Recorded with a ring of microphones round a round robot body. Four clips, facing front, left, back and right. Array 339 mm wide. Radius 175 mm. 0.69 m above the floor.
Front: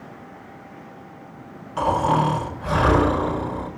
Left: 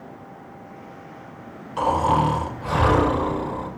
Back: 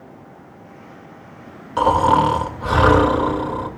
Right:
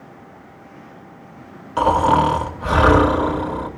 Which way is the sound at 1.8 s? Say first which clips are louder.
Right 5 dB, back 5 dB; 140° right.